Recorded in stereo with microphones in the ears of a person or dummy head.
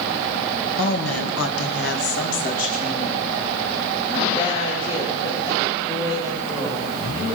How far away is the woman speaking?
About 1.5 m.